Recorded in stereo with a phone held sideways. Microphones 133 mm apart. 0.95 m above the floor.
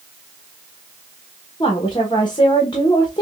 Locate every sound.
1.6 s a woman speaking: 35° left (ahead or behind), 0.9 m